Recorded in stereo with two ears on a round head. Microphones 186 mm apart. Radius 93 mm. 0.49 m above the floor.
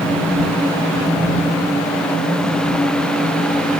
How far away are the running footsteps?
I don't hear running footsteps.